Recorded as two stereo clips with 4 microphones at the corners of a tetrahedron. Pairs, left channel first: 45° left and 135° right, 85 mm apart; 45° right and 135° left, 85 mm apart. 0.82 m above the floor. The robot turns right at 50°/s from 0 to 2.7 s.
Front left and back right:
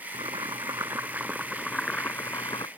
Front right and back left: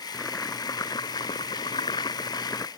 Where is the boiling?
120° right; by 2.7 s 5° left.